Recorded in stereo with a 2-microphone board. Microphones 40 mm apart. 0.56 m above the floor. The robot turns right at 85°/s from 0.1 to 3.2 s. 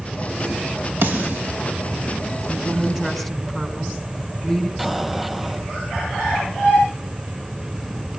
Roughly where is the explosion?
Centre.